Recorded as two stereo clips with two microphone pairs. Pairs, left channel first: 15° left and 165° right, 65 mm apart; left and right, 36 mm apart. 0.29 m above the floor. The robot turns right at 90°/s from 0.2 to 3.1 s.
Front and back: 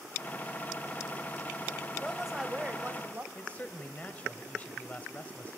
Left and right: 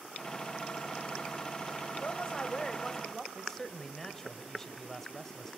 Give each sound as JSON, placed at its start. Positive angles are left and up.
{"t": 2.0, "sound": "a woman speaking", "azimuth_deg": 95, "distance_m": 1.0}
{"t": 3.4, "sound": "a man speaking", "azimuth_deg": 30, "distance_m": 1.0}